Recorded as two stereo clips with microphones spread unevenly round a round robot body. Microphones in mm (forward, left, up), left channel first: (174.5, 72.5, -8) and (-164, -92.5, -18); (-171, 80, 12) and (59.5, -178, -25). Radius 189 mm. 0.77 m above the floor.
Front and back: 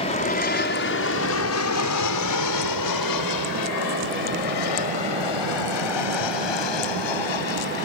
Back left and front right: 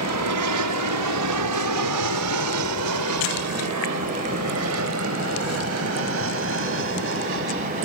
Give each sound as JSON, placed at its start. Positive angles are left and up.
{"t": 0.0, "sound": "an aircraft", "azimuth_deg": -40}